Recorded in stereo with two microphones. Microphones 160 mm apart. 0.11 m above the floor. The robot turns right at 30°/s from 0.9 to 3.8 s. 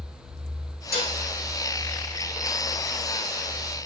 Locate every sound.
0.9 s dishes clattering: 75° left (ahead or behind), 3.5 m; by 1.2 s 70° left (ahead or behind), 3.5 m